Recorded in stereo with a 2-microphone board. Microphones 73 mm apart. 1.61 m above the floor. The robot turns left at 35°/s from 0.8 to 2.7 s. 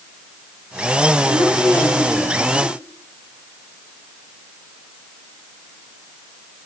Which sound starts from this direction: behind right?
A woman speaking, at 1.2 s.